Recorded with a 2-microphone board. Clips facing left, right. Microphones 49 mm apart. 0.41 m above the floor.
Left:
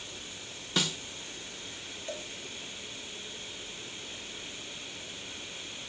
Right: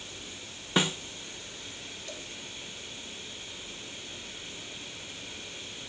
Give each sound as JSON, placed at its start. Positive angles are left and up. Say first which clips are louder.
{"t": 0.8, "sound": "a snare drum", "louder": "right 4 dB", "side_deg": -25, "distance_m": 0.6}
{"t": 2.1, "sound": "a cowbell", "louder": "left 6 dB", "side_deg": 25, "distance_m": 0.9}